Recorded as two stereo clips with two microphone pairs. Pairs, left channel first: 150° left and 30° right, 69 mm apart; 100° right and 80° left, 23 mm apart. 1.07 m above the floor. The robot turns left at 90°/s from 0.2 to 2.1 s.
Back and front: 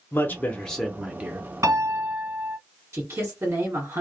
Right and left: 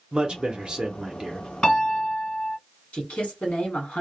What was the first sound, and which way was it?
A man speaking, 120° left.